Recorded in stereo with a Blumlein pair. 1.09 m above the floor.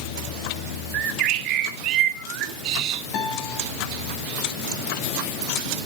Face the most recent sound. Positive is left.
turn(degrees=40)